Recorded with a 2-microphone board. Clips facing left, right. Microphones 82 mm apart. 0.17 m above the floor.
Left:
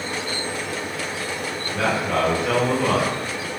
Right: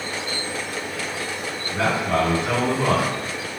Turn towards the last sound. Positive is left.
turn(degrees=-30)  # may be behind; listen again after turning